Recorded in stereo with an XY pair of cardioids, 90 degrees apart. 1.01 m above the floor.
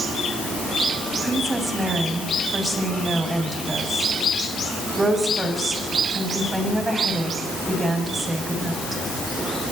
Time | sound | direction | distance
1.2 | a woman speaking | 30° right | 7.5 m